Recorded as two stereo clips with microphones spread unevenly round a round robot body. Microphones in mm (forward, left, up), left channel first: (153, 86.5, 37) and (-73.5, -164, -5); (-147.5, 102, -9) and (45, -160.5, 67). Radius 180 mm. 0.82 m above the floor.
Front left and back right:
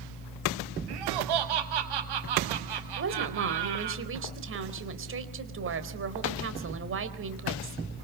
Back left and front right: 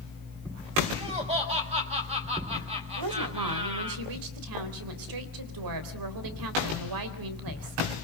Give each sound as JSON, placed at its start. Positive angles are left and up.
{"t": 0.9, "sound": "laughter", "azimuth_deg": -130, "distance_m": 6.5}
{"t": 3.0, "sound": "a woman speaking", "azimuth_deg": -80, "distance_m": 4.0}